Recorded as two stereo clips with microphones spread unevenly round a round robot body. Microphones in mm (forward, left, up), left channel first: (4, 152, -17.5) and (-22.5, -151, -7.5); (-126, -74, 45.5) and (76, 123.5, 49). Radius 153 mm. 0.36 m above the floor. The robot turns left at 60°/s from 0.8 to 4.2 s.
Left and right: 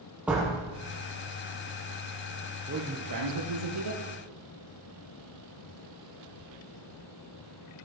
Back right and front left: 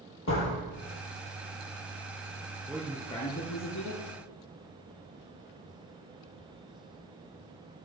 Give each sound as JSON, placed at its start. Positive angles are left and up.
{"t": 0.3, "sound": "a door slam", "azimuth_deg": 180, "distance_m": 7.0}
{"t": 2.7, "sound": "a man speaking", "azimuth_deg": -35, "distance_m": 6.0}